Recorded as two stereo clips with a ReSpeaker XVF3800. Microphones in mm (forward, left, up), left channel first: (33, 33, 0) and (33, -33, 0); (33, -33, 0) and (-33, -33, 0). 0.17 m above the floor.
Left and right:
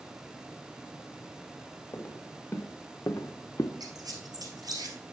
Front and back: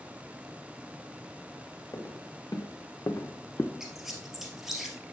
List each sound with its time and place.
1.9 s footsteps: 30° left, 2 m; by 3.7 s 55° left, 0.7 m
3.8 s a squeak: 95° right, 1.9 m